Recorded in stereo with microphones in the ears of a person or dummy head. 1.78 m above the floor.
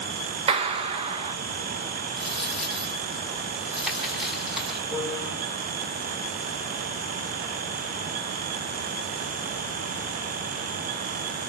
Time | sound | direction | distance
0.5 | a clap | 35° right (ahead or behind) | 2 m
2.2 | a dropped coin | 5° right (ahead or behind) | 5.5 m
4.9 | a piano | 25° right (ahead or behind) | 4 m